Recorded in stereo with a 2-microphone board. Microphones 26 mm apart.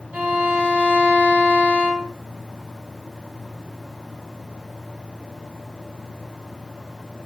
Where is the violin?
85° right, 0.7 m.